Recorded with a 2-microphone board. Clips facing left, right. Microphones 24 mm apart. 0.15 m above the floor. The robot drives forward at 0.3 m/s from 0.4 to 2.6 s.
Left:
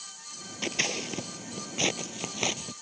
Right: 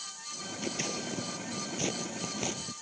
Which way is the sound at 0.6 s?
45° left (ahead or behind).